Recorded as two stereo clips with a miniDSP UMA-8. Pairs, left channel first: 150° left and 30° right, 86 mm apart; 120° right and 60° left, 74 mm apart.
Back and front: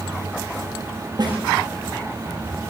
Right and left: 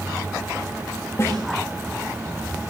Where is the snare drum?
65° right, 9 m.